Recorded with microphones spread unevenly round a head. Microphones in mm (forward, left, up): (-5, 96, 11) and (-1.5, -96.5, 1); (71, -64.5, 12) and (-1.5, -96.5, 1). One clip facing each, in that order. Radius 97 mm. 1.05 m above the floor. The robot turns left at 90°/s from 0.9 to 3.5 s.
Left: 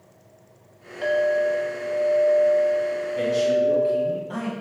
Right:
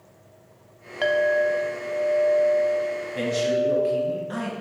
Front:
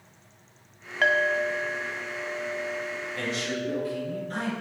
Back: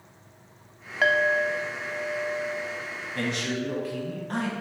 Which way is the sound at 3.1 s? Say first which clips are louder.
Left 3 dB, back 3 dB; 130° right.